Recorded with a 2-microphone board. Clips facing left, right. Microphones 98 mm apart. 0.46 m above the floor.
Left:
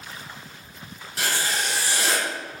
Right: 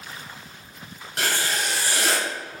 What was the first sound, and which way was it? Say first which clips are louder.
Writing: right 1 dB; 60° right (ahead or behind).